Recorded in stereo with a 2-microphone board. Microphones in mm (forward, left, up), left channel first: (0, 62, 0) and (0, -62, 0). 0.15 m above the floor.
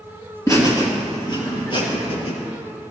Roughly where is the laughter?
Left.